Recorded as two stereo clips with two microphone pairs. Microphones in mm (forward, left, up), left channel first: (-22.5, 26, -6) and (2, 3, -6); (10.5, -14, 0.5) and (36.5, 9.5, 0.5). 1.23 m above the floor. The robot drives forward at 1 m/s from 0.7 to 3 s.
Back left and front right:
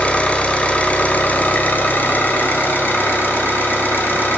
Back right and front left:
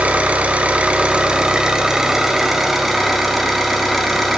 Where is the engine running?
90° left, 2.5 m; by 4.4 s 135° left, 3.5 m.